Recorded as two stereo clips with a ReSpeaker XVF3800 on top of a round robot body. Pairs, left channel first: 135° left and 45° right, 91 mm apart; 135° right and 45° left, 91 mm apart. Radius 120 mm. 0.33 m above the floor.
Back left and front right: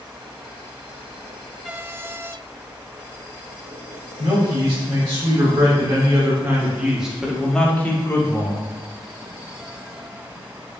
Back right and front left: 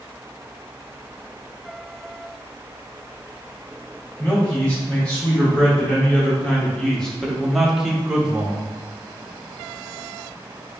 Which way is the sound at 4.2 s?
65° right.